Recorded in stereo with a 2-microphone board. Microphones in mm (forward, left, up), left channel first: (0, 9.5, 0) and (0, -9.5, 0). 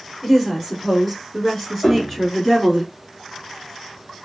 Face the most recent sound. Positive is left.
turn(degrees=15)  # may be behind; listen again after turning